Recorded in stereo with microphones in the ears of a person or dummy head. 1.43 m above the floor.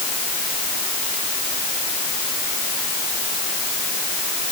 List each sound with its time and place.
Only background noise.